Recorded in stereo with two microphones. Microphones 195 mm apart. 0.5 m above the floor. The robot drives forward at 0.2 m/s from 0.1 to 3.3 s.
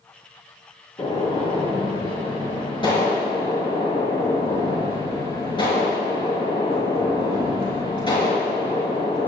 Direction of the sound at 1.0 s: 30° left (ahead or behind).